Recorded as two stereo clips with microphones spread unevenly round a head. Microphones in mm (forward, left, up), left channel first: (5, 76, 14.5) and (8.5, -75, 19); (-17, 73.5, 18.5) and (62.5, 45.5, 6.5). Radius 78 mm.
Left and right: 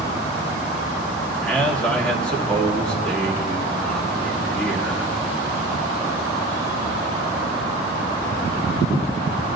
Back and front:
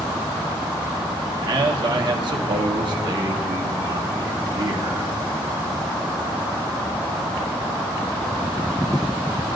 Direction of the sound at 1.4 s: 10° left.